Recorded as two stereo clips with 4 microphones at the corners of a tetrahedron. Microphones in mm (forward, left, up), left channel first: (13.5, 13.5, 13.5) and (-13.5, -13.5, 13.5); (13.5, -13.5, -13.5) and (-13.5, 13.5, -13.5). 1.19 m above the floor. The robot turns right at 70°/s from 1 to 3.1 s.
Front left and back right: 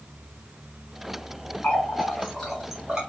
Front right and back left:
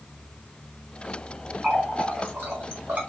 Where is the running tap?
65° left, 1.3 m; by 3.0 s 160° left, 1.3 m.